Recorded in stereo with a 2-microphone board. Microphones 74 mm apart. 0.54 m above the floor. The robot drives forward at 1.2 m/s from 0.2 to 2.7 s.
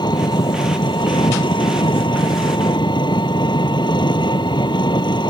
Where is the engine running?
65° left (ahead or behind); by 5.3 s 70° left (ahead or behind).